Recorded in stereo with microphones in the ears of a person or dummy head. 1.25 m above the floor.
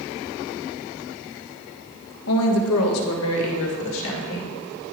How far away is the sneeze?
I don't hear a sneeze.